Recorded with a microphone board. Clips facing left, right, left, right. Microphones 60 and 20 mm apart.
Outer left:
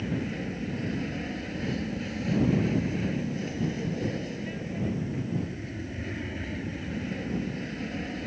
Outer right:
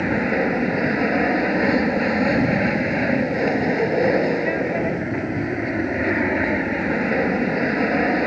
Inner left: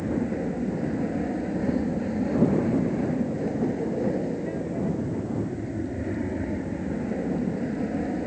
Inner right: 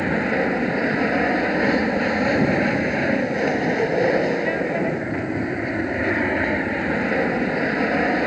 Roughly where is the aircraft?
Right.